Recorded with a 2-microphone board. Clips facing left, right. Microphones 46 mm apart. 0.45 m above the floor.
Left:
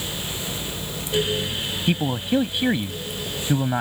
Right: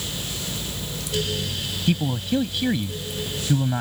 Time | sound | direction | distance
1.9 | a man speaking | 20° left (ahead or behind) | ?